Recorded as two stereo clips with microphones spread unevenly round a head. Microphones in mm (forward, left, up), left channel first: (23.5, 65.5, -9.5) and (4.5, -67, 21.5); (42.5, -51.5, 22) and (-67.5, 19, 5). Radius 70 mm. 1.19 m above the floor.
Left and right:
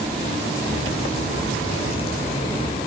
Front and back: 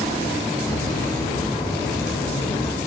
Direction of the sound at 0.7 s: 35° left.